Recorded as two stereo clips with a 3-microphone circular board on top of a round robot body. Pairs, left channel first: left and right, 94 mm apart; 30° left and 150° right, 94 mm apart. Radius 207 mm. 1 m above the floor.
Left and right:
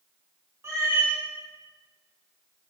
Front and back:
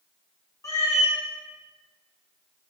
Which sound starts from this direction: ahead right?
A cat meowing, at 0.6 s.